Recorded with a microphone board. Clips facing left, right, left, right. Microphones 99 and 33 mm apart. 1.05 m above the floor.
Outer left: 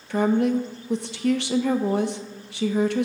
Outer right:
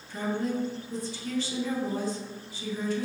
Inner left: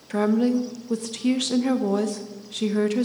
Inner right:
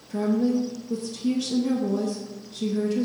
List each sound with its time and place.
0.1 s a woman speaking: 75° left (ahead or behind), 0.7 m